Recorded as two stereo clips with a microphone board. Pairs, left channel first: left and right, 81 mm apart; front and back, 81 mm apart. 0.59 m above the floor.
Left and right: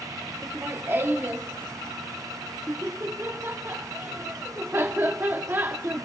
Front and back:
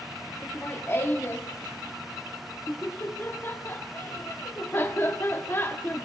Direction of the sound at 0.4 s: 45° right.